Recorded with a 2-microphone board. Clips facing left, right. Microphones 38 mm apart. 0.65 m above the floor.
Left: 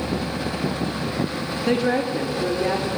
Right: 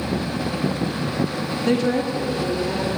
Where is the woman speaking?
5° left (ahead or behind), 0.7 m; by 2.9 s 35° left (ahead or behind), 1.4 m.